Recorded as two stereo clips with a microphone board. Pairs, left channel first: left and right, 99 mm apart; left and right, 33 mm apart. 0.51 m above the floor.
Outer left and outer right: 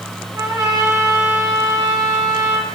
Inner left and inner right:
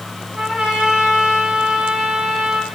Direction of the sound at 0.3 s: 35° right (ahead or behind).